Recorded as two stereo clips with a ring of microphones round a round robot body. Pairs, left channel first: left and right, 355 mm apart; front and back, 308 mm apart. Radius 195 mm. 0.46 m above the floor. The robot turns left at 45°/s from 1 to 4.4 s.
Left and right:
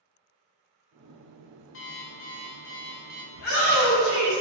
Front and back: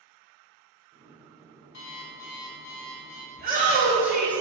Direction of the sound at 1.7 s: 35° left.